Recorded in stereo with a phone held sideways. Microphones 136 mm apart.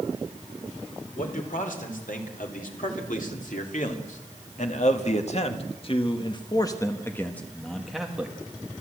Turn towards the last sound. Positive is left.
turn(degrees=-10)  # may be behind; listen again after turning